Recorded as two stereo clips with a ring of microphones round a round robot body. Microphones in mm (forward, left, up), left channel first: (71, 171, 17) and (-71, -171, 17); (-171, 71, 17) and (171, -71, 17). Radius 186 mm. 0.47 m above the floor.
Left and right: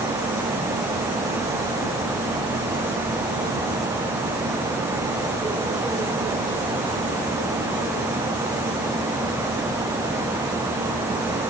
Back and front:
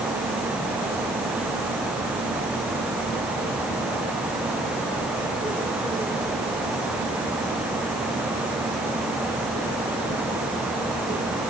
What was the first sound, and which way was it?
Only background noise.